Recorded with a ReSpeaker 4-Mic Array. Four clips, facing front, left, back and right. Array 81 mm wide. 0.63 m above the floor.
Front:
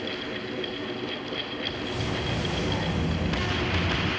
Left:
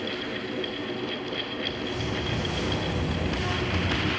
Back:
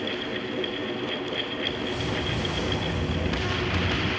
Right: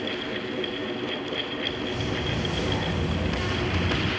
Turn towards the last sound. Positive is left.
turn(degrees=-30)